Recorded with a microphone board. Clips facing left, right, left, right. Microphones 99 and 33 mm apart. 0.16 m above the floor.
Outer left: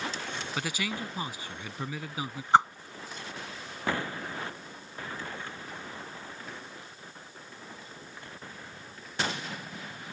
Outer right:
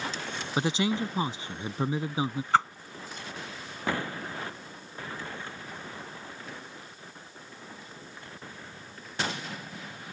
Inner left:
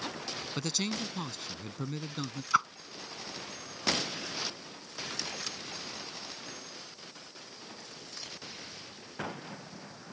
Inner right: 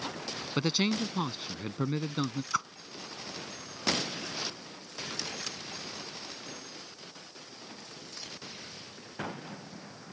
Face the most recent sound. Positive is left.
turn(degrees=20)  # may be behind; listen again after turning